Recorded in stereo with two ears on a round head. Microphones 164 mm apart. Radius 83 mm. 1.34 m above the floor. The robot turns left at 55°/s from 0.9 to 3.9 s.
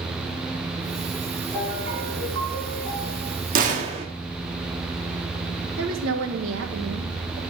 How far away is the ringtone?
About 5.5 m.